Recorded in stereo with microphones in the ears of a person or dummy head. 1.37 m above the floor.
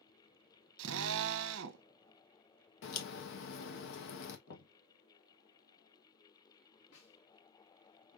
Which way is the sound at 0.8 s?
75° right (ahead or behind).